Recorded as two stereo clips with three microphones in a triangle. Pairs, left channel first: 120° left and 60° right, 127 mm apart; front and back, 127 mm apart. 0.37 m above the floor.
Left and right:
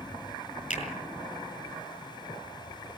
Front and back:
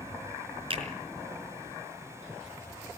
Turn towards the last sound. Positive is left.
turn(degrees=130)